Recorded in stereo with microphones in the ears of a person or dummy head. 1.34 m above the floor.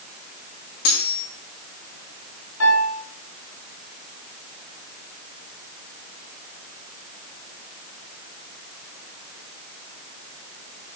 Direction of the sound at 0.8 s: 65° left (ahead or behind).